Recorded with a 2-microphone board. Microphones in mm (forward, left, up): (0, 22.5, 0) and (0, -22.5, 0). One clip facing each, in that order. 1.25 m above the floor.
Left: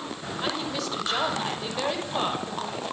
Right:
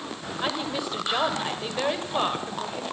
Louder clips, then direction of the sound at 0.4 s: Right 1 dB; 15° right (ahead or behind).